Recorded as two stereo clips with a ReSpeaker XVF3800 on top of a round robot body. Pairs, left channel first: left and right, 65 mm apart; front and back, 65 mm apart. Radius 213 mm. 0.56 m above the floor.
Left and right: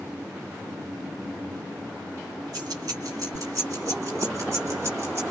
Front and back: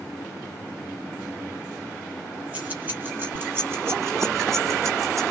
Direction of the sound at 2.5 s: 110° right.